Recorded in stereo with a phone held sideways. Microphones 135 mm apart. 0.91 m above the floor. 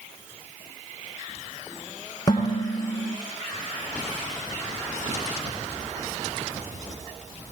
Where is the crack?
I don't hear a crack.